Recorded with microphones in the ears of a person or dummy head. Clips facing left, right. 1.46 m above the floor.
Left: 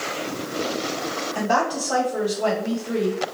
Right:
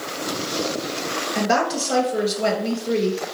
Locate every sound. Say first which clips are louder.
1.4 s a woman speaking: right 2 dB; 30° right (ahead or behind), 1.7 m